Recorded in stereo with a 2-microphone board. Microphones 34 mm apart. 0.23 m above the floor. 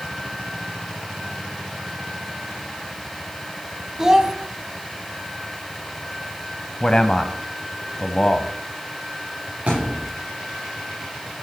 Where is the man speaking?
25° left (ahead or behind), 1.2 m.